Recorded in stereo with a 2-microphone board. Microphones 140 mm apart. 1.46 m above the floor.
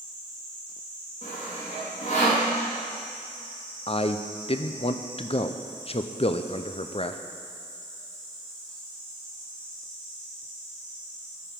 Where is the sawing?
55° left (ahead or behind), 3 m.